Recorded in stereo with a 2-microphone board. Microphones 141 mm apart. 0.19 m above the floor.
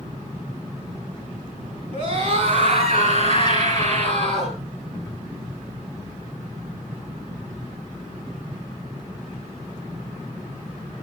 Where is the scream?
40° right (ahead or behind), 3 m; by 4.6 s 50° right (ahead or behind), 5 m.